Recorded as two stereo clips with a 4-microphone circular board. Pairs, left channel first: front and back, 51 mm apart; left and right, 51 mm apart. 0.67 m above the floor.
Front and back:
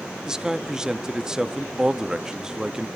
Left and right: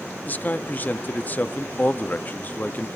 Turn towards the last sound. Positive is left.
turn(degrees=110)